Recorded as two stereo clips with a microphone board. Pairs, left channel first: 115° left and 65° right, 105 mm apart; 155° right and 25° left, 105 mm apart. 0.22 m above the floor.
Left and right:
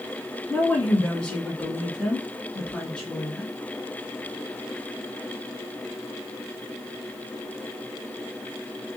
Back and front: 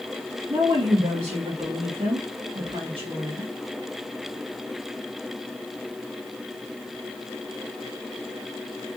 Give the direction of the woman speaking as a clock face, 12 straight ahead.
11 o'clock.